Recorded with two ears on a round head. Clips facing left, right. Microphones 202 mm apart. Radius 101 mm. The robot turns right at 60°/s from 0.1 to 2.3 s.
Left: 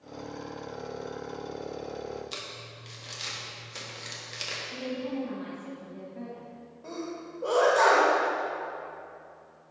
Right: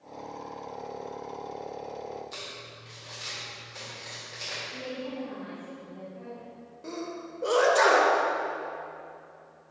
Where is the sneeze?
30° right (ahead or behind), 1.2 m.